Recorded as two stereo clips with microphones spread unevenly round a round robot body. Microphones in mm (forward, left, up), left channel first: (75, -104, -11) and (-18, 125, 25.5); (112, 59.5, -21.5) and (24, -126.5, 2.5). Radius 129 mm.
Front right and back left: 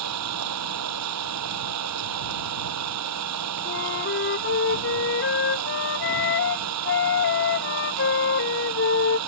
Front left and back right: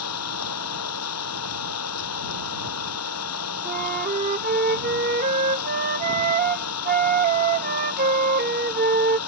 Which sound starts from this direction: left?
An engine running, at 0.0 s.